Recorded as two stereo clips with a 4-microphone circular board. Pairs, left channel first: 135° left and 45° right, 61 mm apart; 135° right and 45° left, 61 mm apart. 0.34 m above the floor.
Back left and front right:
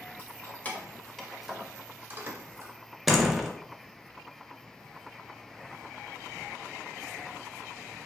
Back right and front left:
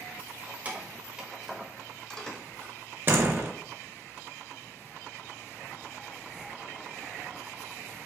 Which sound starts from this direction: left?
Keys jangling, at 0.2 s.